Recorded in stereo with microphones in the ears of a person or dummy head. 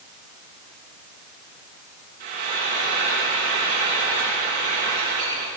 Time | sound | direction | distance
2.2 | frying | 45° right (ahead or behind) | 8 m